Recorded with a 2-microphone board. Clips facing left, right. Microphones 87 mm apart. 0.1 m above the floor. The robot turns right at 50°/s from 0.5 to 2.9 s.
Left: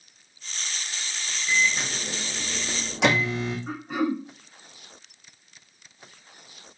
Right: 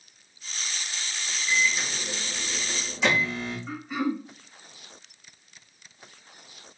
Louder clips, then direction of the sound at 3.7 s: Left 1 dB; 55° left (ahead or behind).